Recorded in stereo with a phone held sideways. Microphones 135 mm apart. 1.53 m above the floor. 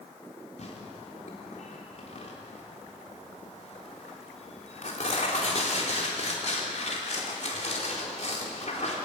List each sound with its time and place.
0.6 s tearing paper: 60° left (ahead or behind), 3.5 m